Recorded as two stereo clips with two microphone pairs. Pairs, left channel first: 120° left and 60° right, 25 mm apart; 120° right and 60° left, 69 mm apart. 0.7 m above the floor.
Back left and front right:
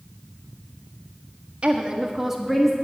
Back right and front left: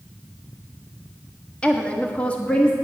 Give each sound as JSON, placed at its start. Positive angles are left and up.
{"t": 1.6, "sound": "a woman speaking", "azimuth_deg": -50, "distance_m": 1.4}